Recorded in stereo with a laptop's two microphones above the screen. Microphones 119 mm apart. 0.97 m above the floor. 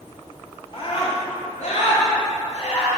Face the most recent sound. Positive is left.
turn(degrees=60)  # may be behind; listen again after turning